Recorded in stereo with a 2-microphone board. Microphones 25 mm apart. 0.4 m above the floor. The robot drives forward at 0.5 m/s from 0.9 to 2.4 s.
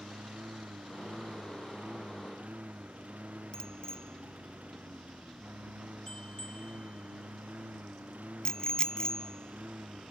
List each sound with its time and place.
0.0 s a lawn mower: 75° right (ahead or behind)
3.5 s a bicycle bell: 25° left (ahead or behind)